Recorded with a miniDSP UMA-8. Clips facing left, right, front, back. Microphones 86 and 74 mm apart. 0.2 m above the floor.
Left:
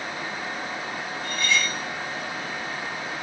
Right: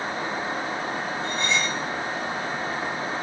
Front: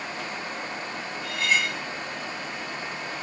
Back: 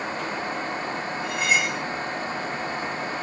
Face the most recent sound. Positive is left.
turn(degrees=-125)